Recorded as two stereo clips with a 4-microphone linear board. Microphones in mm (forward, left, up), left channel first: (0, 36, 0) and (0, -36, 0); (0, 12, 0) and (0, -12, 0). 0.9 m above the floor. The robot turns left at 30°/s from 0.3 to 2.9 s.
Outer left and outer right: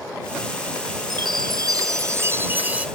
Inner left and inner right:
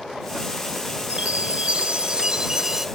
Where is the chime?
110° right; by 2.9 s 165° right.